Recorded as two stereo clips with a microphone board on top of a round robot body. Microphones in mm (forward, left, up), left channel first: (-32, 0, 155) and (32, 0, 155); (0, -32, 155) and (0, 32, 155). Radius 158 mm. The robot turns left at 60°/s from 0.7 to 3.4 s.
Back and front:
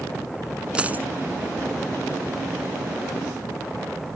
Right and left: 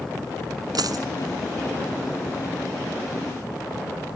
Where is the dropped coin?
75° left; by 1.1 s 60° left.